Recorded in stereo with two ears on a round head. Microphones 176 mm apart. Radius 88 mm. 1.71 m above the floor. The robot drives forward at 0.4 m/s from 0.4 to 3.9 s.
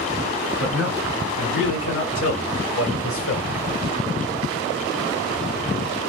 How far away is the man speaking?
About 3 m.